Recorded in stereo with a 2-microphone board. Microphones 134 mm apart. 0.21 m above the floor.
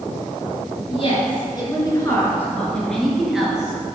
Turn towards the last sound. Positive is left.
turn(degrees=-10)  # may be behind; listen again after turning